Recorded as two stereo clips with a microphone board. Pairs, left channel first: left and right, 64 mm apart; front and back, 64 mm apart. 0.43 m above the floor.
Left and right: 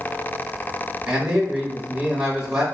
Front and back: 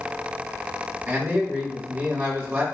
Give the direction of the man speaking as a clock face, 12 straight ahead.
5 o'clock.